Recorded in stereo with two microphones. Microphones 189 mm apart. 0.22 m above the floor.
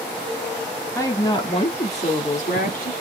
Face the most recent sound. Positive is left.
turn(degrees=50)  # may be behind; listen again after turning